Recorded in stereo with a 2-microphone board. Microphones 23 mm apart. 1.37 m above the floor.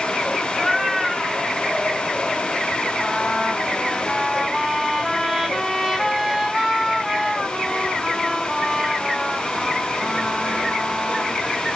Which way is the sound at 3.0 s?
5° right (ahead or behind).